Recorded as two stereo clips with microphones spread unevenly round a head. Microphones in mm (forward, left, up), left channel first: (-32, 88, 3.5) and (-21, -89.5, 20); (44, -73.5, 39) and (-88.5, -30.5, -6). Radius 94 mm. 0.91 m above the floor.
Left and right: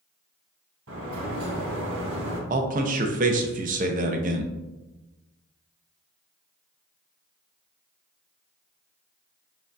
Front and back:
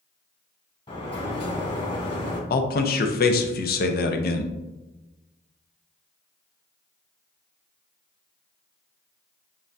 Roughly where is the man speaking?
Ahead right.